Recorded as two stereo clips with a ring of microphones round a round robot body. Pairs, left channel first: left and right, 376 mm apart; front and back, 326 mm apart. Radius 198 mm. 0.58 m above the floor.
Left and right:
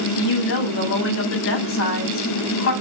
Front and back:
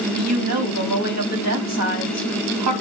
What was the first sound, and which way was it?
A woman speaking, 145° left.